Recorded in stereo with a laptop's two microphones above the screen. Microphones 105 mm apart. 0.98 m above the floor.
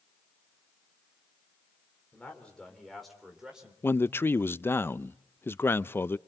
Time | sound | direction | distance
2.1 | a man speaking | 15° left (ahead or behind) | 3.5 m
3.8 | a man speaking | 20° left (ahead or behind) | 0.5 m